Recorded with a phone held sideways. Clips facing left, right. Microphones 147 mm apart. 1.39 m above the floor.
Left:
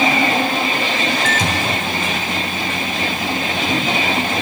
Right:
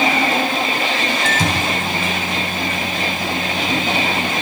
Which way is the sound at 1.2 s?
60° right (ahead or behind).